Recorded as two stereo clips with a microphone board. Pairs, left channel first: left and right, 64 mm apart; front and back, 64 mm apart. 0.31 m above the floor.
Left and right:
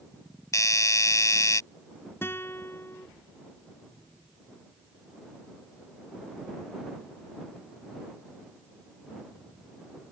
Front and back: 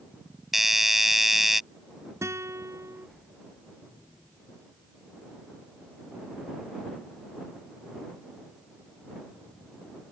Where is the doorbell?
95° left.